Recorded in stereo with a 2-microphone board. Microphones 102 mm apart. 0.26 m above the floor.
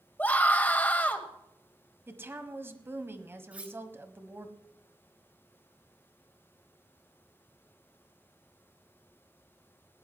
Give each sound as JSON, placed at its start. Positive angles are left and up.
{"t": 0.2, "sound": "a scream", "side_deg": 15, "distance_m": 1.5}
{"t": 2.1, "sound": "a woman speaking", "side_deg": -20, "distance_m": 1.3}
{"t": 3.5, "sound": "cutlery clinking", "side_deg": -10, "distance_m": 2.0}